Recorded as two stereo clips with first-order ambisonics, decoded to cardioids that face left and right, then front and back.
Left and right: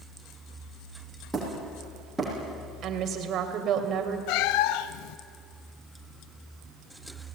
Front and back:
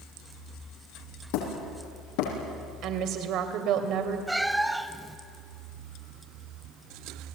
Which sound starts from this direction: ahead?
Hammering, at 1.3 s.